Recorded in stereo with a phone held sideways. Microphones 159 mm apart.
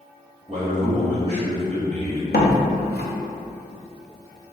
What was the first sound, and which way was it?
A man speaking, 35° right (ahead or behind).